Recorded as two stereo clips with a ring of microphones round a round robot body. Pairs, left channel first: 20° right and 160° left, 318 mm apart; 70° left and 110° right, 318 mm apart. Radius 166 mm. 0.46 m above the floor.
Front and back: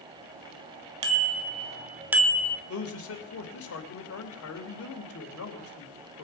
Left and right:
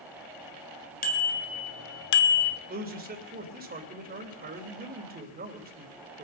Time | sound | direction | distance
1.0 | a bicycle bell | 130° left | 2 m
2.7 | a man speaking | 55° right | 2.5 m